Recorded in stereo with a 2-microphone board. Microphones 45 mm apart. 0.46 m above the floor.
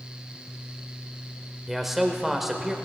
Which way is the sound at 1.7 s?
5° right (ahead or behind).